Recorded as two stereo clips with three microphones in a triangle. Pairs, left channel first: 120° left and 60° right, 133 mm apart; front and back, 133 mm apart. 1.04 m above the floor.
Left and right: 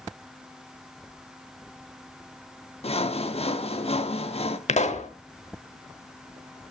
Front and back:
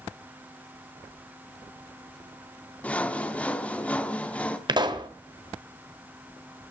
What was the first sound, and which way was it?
Sawing, 80° left.